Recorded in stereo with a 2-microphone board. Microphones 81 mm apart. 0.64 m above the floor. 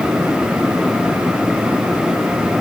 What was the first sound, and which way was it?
Only background noise.